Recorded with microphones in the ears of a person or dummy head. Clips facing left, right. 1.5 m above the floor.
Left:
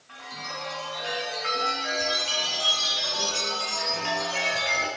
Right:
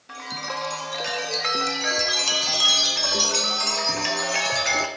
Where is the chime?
65° right (ahead or behind), 0.5 m.